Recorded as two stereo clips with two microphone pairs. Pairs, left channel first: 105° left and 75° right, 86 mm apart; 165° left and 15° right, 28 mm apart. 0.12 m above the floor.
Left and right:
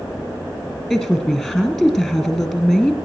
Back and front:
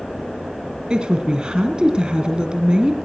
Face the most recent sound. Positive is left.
turn(degrees=15)